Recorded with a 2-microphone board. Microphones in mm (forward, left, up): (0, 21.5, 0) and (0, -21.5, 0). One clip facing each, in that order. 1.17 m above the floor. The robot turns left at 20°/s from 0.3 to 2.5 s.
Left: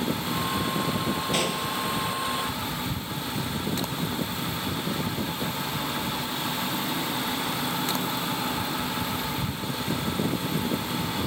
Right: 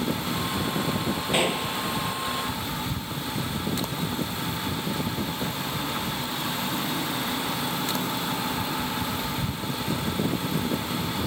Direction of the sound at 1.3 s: 20° right (ahead or behind).